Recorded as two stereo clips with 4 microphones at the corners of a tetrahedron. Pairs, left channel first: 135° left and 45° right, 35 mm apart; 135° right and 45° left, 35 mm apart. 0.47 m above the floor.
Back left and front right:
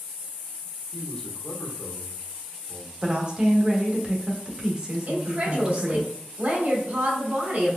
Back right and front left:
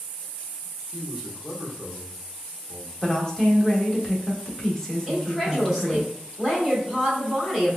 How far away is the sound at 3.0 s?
About 0.9 m.